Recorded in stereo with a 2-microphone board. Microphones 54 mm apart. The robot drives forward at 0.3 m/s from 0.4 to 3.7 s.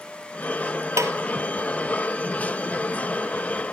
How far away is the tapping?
About 1.1 m.